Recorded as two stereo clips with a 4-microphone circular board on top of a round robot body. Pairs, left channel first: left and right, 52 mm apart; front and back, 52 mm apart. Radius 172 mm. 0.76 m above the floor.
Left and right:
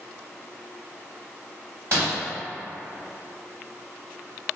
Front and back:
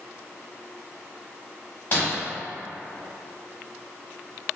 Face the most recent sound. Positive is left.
turn(degrees=-60)